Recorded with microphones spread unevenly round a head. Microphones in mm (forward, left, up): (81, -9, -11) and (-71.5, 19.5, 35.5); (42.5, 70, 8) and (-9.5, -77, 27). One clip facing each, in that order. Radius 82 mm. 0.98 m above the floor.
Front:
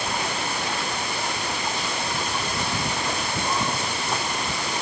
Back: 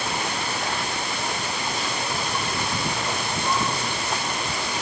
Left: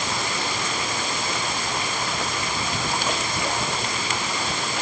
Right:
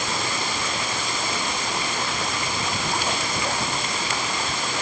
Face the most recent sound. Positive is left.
No sound to turn to.